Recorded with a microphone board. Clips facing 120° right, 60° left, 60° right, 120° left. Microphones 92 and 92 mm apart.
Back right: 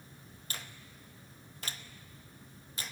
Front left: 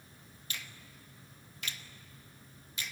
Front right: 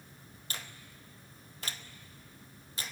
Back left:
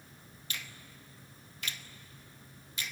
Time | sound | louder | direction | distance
0.5 | a finger snap | even, even | 90° right | 0.9 m